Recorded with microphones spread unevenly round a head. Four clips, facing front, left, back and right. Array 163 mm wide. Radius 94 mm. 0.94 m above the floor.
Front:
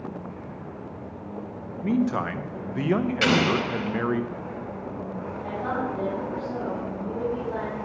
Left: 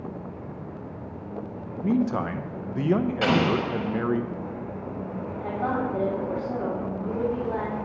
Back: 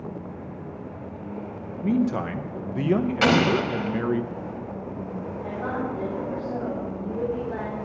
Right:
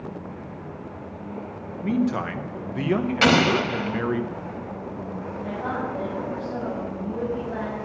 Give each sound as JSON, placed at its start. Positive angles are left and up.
{"t": 1.8, "sound": "a man speaking", "azimuth_deg": 170, "distance_m": 0.6}
{"t": 3.2, "sound": "an explosion", "azimuth_deg": -110, "distance_m": 1.5}
{"t": 5.4, "sound": "a woman speaking", "azimuth_deg": 85, "distance_m": 3.0}